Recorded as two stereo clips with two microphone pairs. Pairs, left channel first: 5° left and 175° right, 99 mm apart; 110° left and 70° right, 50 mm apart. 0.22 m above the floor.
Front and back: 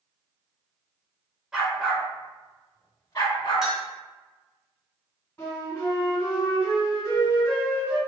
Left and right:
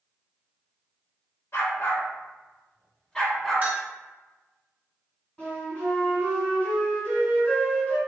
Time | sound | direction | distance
1.5 | a dog barking | 100° left | 1.1 m
3.6 | a clink | 95° right | 1.0 m
5.4 | a flute | 55° left | 1.8 m